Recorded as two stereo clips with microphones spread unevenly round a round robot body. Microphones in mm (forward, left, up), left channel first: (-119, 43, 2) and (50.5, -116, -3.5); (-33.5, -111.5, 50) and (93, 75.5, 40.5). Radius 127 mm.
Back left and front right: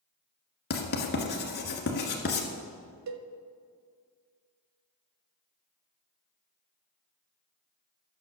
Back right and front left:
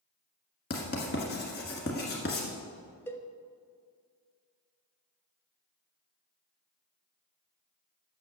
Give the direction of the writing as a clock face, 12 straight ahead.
6 o'clock.